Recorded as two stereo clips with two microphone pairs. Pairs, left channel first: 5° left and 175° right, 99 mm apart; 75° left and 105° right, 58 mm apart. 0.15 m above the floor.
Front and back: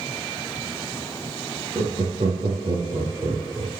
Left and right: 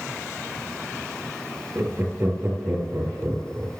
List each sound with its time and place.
1.8 s laughter: 140° right, 3 m